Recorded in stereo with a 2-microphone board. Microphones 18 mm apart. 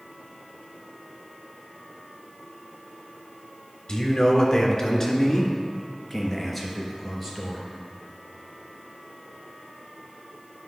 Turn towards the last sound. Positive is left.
turn(degrees=-5)  # may be behind; listen again after turning